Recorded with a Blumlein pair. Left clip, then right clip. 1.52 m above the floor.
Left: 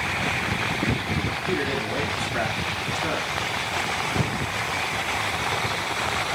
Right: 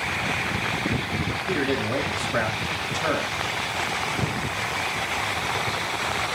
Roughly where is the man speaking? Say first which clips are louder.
Right 2 dB; ahead right.